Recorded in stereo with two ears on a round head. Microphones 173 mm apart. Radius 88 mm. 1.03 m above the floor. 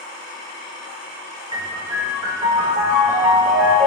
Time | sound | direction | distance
1.5 | a piano | 25° right (ahead or behind) | 2.5 m